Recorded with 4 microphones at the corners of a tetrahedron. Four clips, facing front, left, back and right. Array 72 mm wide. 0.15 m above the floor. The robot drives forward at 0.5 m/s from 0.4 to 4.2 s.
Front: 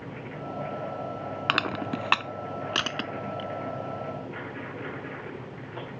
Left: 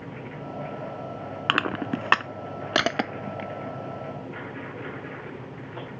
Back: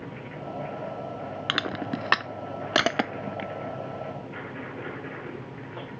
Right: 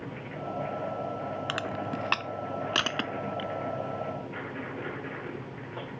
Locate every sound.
1.5 s crushing: 80° left; by 3.5 s 150° left